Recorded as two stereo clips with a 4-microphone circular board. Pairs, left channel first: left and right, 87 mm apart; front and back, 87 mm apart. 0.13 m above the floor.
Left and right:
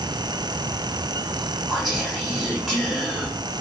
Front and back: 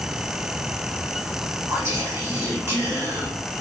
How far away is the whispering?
About 1.6 m.